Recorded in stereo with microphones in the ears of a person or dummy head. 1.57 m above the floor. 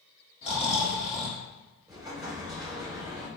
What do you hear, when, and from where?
0.4 s snoring: 30° left (ahead or behind), 1.8 m
1.9 s an explosion: 5° right (ahead or behind), 1.7 m